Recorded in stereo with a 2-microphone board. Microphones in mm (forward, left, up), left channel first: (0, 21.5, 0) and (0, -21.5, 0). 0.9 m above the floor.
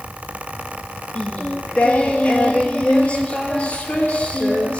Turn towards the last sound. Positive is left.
turn(degrees=25)  # may be behind; listen again after turning